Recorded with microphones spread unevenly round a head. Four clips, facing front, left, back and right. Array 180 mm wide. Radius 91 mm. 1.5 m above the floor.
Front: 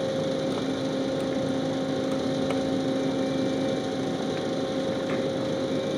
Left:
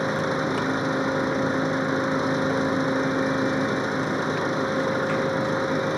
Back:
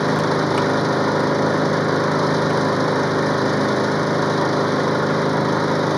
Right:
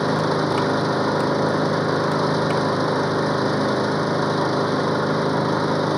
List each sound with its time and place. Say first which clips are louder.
0.0 s an engine running: right 4 dB, back 8 dB; 155° right